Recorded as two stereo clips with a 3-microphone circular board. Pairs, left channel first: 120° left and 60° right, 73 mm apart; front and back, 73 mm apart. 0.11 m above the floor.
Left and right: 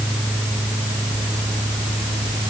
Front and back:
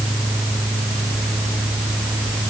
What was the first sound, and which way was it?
Only background noise.